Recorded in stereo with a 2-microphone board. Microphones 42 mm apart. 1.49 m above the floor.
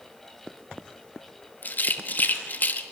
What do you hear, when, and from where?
1.6 s a rattle: 45° left (ahead or behind), 1.3 m